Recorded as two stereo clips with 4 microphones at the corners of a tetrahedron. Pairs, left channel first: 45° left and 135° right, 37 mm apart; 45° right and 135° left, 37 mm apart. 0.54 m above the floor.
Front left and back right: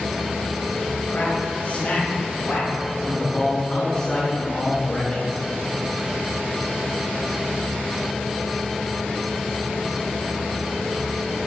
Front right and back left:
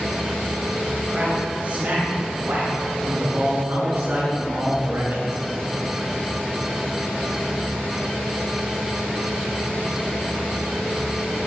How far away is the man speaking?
About 3 m.